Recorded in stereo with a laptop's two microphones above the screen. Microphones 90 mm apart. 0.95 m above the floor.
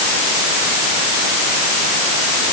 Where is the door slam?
No door slam in this recording.